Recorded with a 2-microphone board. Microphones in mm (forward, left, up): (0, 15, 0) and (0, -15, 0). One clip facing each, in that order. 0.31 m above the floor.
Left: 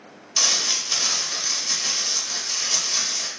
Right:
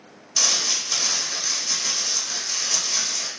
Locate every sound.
0.4 s crumpling: 15° left (ahead or behind), 0.9 m